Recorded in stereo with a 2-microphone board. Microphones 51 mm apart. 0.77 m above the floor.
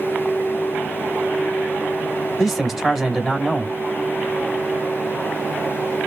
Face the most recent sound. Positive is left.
turn(degrees=5)  # may be behind; listen again after turning